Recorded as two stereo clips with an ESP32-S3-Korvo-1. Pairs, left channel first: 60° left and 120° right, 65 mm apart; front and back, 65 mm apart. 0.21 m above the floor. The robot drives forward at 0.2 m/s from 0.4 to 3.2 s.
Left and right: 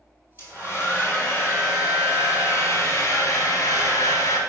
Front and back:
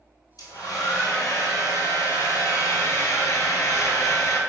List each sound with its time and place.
0.4 s a hair dryer: 15° left, 1.1 m; by 4.4 s 30° left, 0.6 m